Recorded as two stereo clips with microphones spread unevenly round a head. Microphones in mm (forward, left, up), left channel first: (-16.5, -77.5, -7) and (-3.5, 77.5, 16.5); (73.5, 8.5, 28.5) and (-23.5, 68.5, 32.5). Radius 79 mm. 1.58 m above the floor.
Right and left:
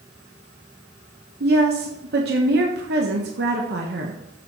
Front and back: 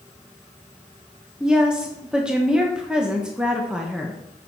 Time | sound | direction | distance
1.4 | a woman speaking | 65° left | 1.4 m